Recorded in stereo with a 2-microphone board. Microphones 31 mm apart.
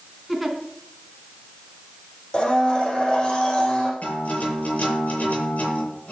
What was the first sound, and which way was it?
A giggle, centre (ahead or behind).